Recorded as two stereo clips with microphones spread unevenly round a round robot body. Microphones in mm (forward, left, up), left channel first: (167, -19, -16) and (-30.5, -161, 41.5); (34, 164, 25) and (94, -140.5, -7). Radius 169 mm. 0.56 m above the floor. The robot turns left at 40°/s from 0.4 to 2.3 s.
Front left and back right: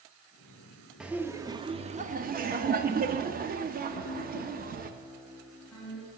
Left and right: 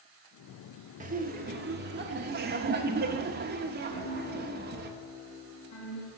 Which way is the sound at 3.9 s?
115° left.